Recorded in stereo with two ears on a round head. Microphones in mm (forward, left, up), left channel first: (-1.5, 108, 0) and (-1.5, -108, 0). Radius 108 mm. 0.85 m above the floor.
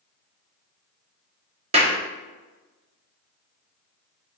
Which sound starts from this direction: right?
A clap, at 1.7 s.